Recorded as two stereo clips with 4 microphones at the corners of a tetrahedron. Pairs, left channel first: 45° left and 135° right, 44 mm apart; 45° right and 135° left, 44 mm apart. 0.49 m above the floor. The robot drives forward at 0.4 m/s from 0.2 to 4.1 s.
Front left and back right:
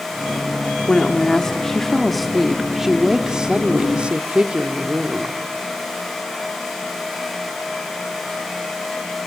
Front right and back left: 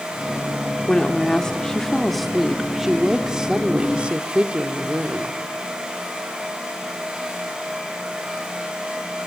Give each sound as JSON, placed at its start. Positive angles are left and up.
{"t": 0.9, "sound": "a woman speaking", "azimuth_deg": -10, "distance_m": 1.2}